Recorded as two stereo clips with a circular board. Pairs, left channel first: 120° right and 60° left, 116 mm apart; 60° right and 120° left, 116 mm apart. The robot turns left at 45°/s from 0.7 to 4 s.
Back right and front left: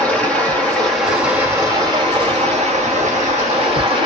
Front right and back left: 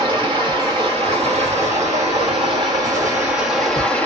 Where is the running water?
160° left, 1.8 m; by 4.1 s 15° left, 1.8 m.